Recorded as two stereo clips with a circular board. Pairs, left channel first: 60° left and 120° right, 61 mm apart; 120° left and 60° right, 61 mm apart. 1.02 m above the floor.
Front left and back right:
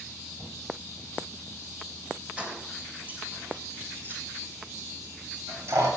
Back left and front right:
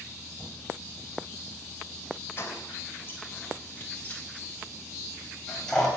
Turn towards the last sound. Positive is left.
turn(degrees=-160)